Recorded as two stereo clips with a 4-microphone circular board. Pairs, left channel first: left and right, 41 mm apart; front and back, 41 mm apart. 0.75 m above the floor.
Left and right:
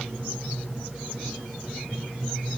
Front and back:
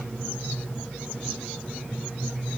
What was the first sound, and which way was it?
Only background noise.